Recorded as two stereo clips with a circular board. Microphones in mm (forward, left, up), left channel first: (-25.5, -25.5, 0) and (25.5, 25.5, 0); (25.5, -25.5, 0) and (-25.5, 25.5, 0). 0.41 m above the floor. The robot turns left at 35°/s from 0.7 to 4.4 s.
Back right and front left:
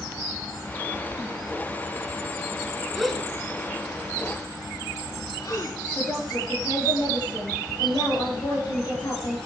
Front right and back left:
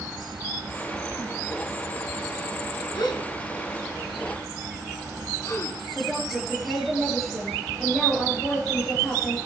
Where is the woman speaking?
130° right, 8 m.